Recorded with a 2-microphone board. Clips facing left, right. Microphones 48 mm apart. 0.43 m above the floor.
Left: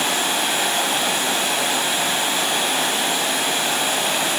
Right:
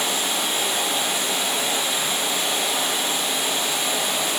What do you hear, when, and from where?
0.0 s running water: 70° left (ahead or behind), 1.7 m